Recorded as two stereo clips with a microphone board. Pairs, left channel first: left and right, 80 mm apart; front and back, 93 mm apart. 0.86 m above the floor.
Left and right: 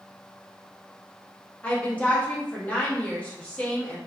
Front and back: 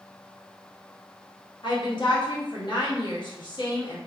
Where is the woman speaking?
20° left, 1.0 m.